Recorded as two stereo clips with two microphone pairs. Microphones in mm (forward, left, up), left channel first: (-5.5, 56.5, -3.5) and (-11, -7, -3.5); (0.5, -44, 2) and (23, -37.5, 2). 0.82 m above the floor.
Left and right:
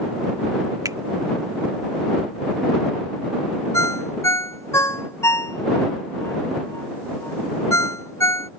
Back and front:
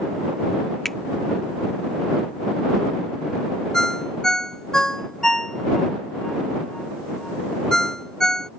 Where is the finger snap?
90° right.